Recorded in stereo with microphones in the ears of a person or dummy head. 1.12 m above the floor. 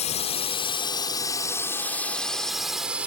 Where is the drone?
35° left (ahead or behind); by 3.1 s 10° right (ahead or behind).